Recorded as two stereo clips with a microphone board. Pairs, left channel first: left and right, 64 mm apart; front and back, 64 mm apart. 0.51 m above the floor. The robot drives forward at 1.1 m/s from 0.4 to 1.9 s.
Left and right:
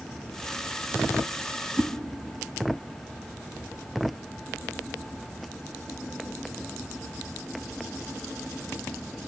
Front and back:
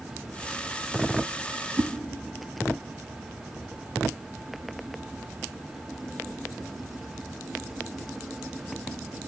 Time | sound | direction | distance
1.8 | a whoosh | 150° right | 0.6 m